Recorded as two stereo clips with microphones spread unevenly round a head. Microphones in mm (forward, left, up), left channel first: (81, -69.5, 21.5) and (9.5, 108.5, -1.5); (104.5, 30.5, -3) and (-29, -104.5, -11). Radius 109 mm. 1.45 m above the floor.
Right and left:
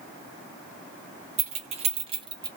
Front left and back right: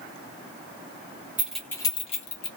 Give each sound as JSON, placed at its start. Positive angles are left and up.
{"t": 1.4, "sound": "keys jangling", "azimuth_deg": 145, "distance_m": 0.6}